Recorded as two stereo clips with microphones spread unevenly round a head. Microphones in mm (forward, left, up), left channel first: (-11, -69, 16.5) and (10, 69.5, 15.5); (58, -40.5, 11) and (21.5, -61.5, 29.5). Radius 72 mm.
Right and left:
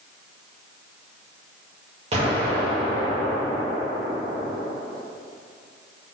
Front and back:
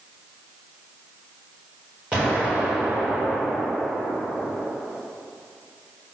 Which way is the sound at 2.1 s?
130° left.